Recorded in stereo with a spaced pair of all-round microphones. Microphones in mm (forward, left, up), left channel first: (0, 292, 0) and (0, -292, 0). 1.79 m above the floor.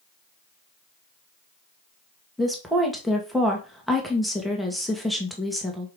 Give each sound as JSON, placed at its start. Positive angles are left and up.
{"t": 2.4, "sound": "a woman speaking", "side_deg": 0, "distance_m": 2.0}